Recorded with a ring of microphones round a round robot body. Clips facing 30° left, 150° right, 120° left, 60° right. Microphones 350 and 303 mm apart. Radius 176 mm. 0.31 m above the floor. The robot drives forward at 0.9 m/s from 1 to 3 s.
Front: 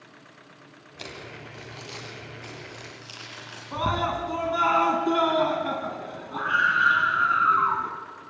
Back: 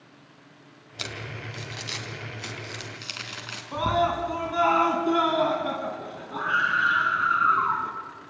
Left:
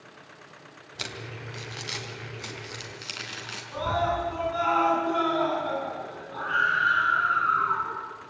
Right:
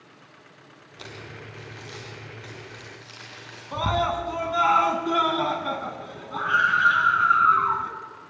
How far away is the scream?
About 3 m.